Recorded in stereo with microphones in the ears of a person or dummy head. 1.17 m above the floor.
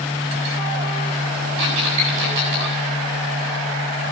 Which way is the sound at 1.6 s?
70° right (ahead or behind).